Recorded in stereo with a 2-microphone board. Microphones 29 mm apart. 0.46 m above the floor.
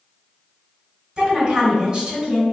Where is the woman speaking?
25° right (ahead or behind), 1.5 m.